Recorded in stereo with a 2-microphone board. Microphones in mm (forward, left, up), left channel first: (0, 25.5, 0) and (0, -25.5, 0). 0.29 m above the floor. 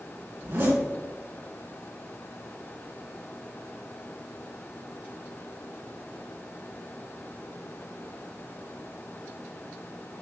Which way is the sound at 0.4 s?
50° right (ahead or behind).